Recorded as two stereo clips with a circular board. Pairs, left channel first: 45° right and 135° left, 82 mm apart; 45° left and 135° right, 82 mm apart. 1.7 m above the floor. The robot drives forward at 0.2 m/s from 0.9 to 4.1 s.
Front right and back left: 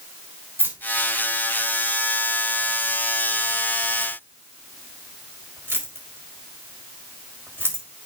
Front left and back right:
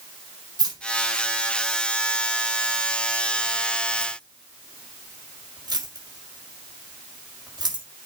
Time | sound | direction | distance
0.6 | keys jangling | 160° right | 4 m